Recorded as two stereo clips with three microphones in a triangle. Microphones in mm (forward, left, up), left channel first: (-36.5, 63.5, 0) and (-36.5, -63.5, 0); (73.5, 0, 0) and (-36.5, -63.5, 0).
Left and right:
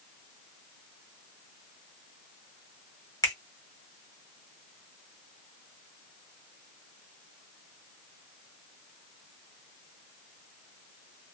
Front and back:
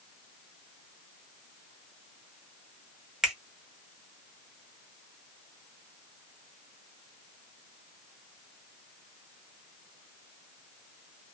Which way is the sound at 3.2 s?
130° left.